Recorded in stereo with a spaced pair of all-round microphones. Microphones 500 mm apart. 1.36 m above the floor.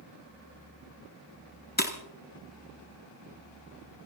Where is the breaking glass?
20° left (ahead or behind), 1.7 m.